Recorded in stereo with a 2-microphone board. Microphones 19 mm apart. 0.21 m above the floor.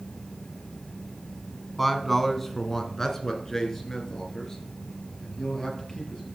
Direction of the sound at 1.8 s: 5° left (ahead or behind).